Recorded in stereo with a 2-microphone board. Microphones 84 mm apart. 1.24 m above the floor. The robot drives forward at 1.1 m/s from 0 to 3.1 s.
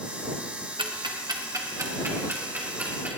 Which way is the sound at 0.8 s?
80° right.